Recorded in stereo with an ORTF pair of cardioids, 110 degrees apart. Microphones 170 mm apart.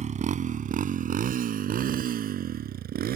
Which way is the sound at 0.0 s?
45° right.